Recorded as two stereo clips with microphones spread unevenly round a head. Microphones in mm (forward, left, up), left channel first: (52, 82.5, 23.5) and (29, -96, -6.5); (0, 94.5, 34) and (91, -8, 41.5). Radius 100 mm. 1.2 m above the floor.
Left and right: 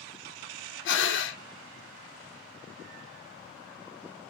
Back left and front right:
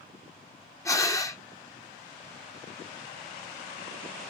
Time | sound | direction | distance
0.8 | breathing | 65° left | 0.9 m